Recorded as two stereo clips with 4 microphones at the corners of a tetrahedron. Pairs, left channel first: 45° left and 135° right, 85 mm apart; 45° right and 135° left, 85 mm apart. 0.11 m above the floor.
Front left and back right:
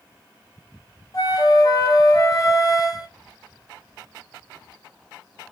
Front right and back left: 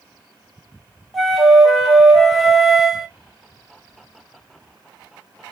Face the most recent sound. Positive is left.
turn(degrees=45)